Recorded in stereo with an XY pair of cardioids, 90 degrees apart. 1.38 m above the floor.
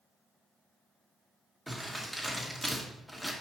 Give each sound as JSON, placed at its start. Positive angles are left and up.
{"t": 1.7, "sound": "crumpling", "azimuth_deg": 0, "distance_m": 2.0}